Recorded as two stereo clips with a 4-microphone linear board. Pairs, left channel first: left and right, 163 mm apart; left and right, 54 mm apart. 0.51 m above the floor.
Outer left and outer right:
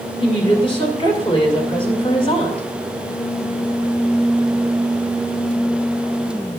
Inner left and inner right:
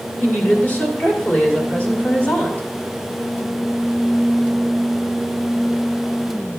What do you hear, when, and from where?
0.2 s a woman speaking: 35° left (ahead or behind), 2 m